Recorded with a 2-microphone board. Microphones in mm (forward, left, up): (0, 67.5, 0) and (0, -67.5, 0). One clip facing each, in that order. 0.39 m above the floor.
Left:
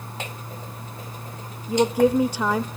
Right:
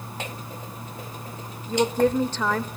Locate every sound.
1.7 s a woman speaking: 10° left (ahead or behind), 0.9 m